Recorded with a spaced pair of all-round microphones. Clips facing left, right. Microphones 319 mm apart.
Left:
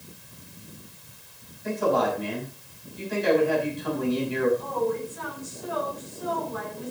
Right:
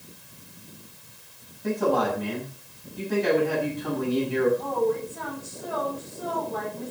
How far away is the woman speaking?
About 7.5 m.